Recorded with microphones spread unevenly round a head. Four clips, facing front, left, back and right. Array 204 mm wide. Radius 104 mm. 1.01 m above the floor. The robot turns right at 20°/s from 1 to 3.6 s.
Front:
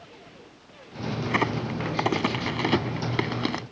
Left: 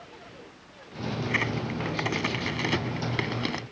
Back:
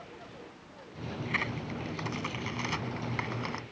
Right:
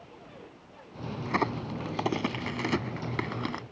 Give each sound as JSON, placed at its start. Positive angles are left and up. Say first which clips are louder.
{"t": 1.2, "sound": "a crack", "louder": "right 3 dB, front 10 dB", "azimuth_deg": -35}